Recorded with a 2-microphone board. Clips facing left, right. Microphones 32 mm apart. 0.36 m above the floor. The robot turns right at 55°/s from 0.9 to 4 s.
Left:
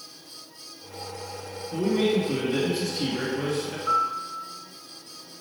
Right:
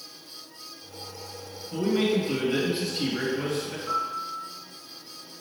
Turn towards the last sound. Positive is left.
turn(degrees=50)  # may be behind; listen again after turning